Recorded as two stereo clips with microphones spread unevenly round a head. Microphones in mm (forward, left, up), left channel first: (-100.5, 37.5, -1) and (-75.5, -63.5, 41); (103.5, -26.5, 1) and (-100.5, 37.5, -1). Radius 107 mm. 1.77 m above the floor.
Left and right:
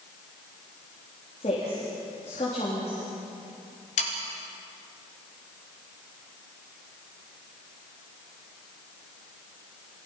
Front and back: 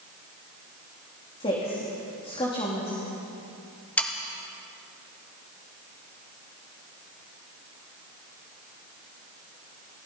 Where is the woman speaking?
50° left, 3.5 m.